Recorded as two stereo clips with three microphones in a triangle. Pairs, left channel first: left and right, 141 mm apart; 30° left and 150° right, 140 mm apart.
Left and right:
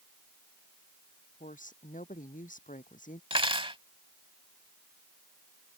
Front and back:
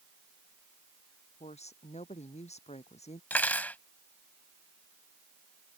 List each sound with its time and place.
1.4 s a woman speaking: 70° left
3.3 s cutlery clinking: 45° right